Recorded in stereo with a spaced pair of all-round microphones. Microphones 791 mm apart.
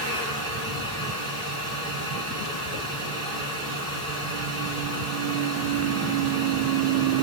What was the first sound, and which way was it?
A fan, 20° right (ahead or behind).